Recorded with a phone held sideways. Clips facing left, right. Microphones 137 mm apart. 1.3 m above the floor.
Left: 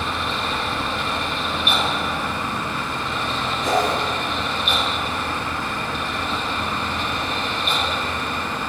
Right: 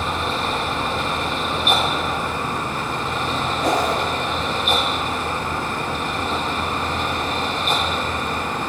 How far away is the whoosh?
About 5 m.